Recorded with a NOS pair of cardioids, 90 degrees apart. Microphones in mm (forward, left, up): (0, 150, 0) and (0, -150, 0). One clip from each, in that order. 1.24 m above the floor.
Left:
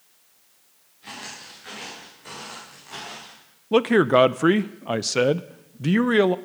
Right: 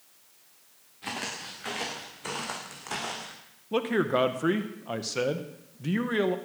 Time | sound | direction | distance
1.0 | footsteps | 60° right | 7 m
3.7 | a man speaking | 45° left | 0.8 m